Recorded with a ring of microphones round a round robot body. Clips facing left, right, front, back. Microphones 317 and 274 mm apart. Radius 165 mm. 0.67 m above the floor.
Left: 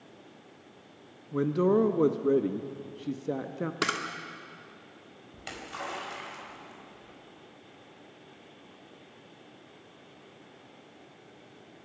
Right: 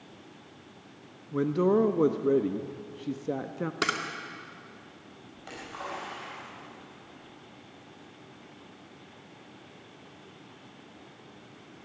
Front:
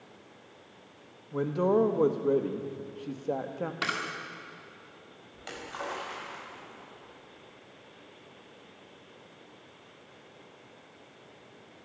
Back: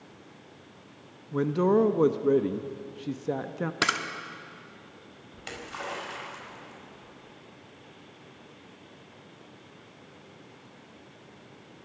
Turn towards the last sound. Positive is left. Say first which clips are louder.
# left 1 dB, even
turn(degrees=130)